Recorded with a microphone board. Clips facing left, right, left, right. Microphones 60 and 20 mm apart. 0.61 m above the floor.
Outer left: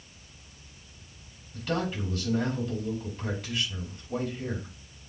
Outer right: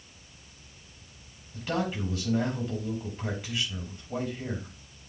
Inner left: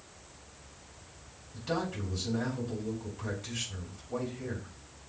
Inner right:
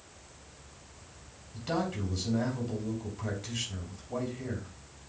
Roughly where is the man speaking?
Centre.